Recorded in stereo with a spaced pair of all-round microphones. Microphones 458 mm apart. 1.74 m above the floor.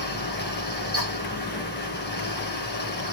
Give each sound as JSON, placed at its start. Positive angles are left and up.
{"t": 0.0, "sound": "a fan", "side_deg": 20, "distance_m": 1.2}